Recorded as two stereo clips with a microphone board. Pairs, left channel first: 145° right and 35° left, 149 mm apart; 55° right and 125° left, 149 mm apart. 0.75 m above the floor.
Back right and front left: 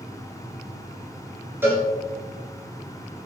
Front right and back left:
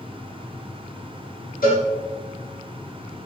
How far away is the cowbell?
About 7 m.